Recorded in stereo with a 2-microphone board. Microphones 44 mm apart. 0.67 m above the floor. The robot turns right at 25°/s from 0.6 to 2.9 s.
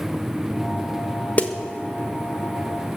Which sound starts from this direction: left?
A snare drum, at 1.4 s.